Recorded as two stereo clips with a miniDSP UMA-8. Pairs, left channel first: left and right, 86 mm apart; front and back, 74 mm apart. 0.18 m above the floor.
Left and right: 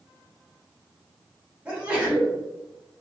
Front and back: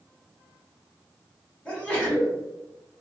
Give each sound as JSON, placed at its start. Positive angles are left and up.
{"t": 1.6, "sound": "a sneeze", "azimuth_deg": -35, "distance_m": 1.1}